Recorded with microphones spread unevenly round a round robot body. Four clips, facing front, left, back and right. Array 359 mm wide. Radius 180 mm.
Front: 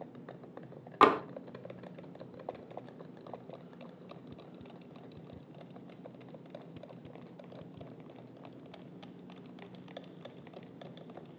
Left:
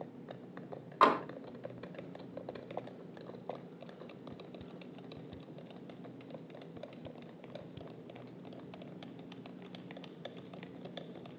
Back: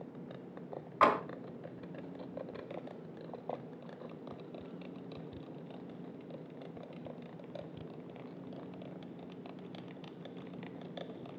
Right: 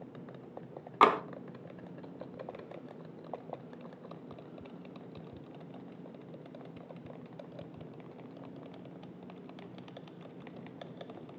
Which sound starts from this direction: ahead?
Tapping, at 1.0 s.